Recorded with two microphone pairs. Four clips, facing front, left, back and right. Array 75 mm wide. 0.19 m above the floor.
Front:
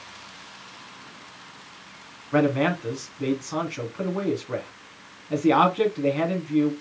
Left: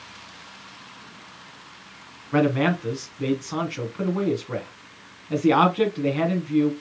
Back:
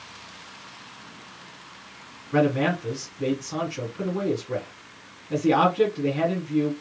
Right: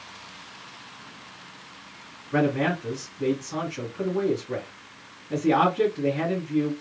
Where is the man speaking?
55° left, 1.2 m.